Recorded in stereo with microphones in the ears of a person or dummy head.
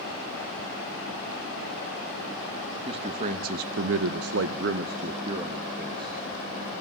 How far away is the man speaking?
About 1.4 m.